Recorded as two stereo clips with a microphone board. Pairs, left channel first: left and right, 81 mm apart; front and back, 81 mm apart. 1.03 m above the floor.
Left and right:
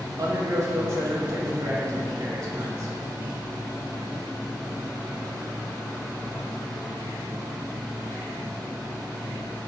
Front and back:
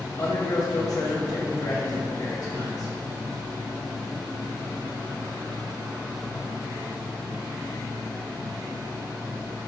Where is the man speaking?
40° right, 1.1 m.